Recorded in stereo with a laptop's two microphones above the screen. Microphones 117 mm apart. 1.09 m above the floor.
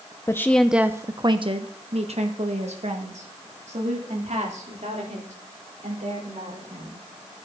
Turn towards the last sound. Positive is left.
turn(degrees=-80)